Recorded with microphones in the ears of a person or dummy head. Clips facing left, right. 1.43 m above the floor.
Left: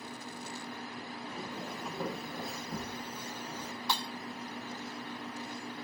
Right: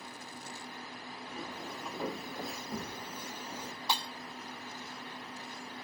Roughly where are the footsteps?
Centre.